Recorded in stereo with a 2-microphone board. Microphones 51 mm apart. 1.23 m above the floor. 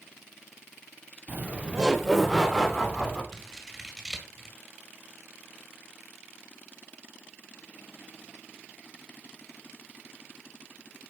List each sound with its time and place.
1.3 s laughter: 40° right (ahead or behind), 1.0 m; by 3.2 s 15° left (ahead or behind), 2.5 m
3.3 s scissors: centre (ahead or behind), 1.9 m